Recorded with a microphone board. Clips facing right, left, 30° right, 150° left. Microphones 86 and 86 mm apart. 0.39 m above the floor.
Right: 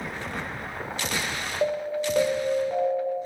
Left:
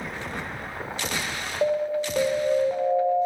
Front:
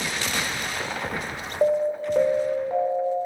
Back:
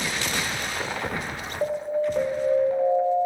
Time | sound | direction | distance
1.6 | an alarm | 10° left | 1.2 m